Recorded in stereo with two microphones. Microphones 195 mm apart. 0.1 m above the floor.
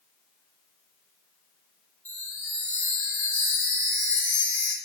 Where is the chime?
10° left (ahead or behind), 3.5 m.